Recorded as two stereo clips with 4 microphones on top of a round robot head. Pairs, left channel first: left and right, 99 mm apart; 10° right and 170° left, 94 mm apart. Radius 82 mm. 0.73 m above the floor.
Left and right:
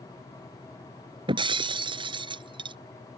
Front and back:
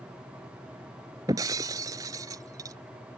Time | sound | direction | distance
1.3 | breaking glass | 125° right | ?